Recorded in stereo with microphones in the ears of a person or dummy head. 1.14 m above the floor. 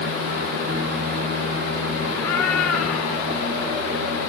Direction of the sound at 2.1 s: 10° left (ahead or behind).